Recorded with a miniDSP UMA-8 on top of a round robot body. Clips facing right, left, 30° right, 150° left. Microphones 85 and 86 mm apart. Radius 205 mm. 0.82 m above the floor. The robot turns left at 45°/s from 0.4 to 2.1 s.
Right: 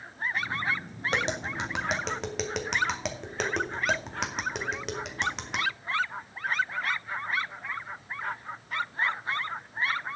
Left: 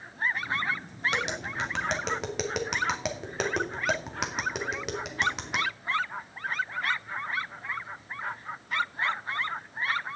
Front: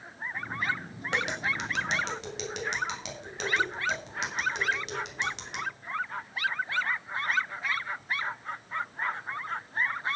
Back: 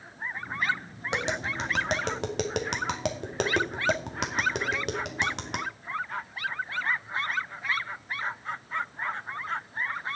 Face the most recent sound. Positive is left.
turn(degrees=175)